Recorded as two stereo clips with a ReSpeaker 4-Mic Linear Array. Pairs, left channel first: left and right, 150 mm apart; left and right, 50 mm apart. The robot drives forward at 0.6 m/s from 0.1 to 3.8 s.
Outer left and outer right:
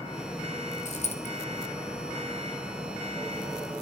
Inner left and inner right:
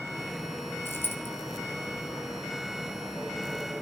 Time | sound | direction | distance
0.8 | a dropped coin | 50° left (ahead or behind) | 1.2 m